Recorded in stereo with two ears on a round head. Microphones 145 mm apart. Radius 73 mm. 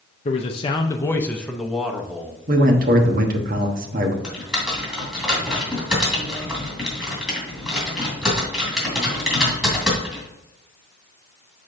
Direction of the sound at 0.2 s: 40° left (ahead or behind).